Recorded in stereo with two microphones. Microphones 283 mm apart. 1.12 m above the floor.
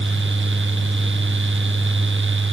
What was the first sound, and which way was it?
Only background noise.